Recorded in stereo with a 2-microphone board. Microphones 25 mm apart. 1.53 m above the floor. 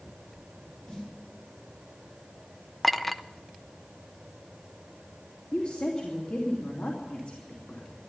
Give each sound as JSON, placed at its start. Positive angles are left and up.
{"t": 0.9, "sound": "a snare drum", "side_deg": 35, "distance_m": 4.5}
{"t": 2.8, "sound": "a clink", "side_deg": 5, "distance_m": 0.5}
{"t": 5.5, "sound": "a woman speaking", "side_deg": 70, "distance_m": 3.0}